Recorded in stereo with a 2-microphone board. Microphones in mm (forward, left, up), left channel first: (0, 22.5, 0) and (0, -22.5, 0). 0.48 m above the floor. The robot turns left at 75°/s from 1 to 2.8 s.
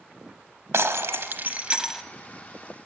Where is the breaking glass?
100° right, 0.8 m; by 2.0 s 175° right, 0.8 m.